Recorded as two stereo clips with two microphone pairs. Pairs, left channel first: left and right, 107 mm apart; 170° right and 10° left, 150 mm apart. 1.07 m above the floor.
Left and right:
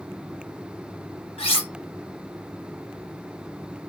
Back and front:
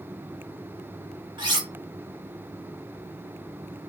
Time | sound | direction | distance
1.4 | cutlery clinking | 65° left | 1.0 m